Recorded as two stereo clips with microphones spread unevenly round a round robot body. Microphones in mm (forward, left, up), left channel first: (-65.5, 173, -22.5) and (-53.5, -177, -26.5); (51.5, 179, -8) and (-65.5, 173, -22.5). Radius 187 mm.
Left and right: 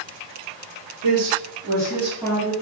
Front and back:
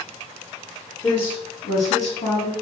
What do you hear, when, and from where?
1.0 s a woman speaking: 65° right, 1.4 m; by 2.5 s 5° left, 1.9 m